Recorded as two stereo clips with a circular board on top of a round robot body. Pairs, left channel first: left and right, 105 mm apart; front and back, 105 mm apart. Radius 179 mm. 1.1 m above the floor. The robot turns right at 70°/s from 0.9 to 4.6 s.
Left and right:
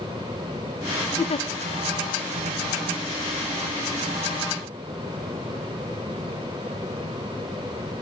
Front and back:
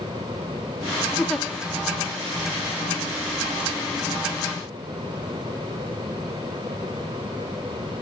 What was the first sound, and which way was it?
A giggle, 75° left.